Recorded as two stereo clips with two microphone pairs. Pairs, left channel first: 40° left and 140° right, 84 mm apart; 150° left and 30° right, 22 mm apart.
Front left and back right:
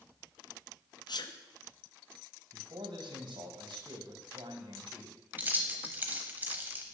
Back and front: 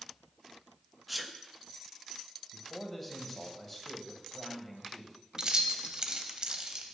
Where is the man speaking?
140° right, 1.1 m.